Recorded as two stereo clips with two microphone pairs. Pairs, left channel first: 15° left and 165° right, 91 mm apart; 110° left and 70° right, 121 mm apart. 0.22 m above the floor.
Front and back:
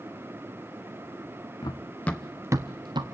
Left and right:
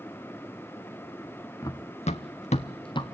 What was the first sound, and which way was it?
Running footsteps, 50° left.